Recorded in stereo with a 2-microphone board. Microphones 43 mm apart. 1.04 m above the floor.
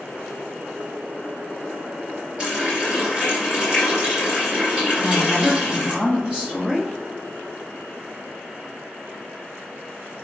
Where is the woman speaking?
25° right (ahead or behind), 1.0 m.